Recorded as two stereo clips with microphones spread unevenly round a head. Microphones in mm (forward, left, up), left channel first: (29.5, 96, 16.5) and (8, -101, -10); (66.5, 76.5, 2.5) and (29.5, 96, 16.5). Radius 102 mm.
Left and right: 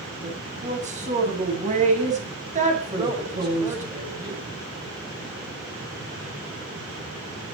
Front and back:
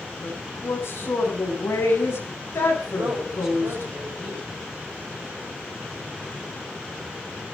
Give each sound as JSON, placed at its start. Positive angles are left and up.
{"t": 0.2, "sound": "a woman speaking", "azimuth_deg": -45, "distance_m": 8.0}
{"t": 2.9, "sound": "a woman speaking", "azimuth_deg": -165, "distance_m": 6.5}